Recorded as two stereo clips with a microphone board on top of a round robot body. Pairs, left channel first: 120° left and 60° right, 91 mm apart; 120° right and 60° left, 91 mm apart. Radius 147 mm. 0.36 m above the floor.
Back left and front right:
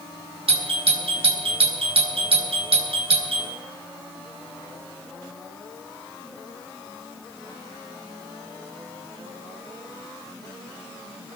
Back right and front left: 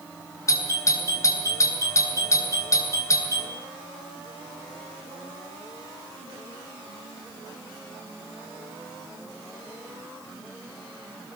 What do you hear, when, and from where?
0.5 s a doorbell: 65° right, 8 m